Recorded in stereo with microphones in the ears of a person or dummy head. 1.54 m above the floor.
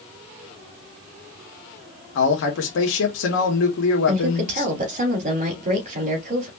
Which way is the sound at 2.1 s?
70° left (ahead or behind).